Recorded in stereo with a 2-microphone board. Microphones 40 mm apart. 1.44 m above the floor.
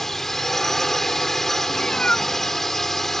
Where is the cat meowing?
30° left (ahead or behind).